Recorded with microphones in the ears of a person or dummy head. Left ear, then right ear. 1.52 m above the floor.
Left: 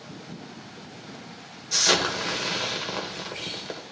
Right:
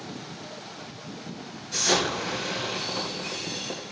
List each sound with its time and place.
1.7 s an explosion: 70° left (ahead or behind), 2.5 m